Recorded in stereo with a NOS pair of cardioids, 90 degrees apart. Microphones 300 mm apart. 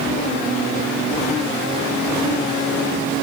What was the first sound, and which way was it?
Only background noise.